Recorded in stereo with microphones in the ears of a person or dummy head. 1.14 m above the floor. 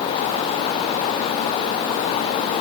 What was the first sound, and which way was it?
Only background noise.